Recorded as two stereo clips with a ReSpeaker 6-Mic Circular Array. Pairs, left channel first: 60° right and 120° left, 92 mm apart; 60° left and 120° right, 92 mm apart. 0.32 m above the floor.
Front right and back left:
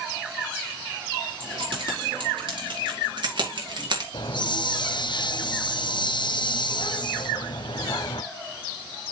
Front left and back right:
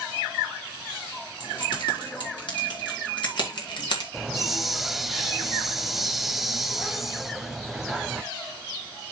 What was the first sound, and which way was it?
Keys jangling, 90° left.